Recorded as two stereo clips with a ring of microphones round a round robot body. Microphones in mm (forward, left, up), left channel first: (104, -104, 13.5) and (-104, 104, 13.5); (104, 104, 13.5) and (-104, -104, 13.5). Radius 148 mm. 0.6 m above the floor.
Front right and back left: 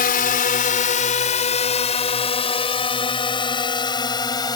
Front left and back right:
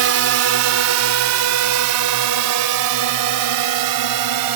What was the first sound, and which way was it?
A drone, 100° right.